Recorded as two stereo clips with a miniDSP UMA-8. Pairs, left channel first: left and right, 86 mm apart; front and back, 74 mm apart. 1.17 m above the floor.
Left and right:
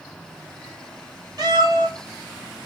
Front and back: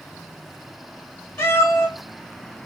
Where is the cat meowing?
55° right, 2.5 m.